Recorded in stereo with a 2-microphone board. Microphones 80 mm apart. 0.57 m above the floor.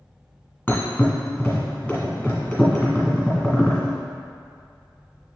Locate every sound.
0.7 s a thud: 20° left (ahead or behind), 1.8 m